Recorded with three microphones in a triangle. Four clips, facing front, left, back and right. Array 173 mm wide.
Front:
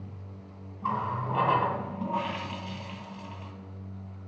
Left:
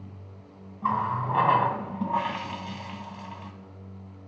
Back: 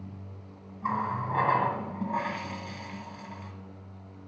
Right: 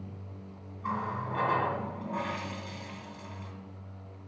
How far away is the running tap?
About 1.8 m.